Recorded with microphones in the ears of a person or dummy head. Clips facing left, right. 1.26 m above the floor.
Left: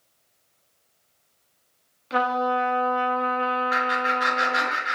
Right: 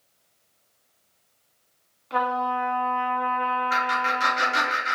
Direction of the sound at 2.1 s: 20° left (ahead or behind).